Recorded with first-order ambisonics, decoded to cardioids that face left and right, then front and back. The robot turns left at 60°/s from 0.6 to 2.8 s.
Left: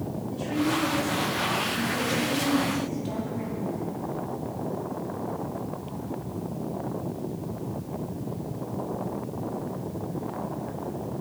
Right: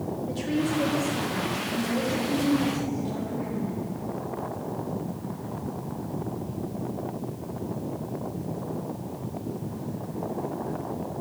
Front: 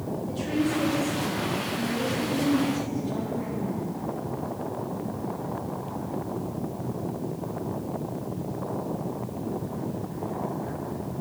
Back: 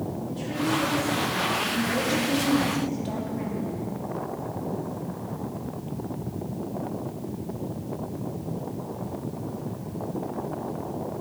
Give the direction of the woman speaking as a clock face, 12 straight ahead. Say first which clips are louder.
Left 1 dB, even; 2 o'clock.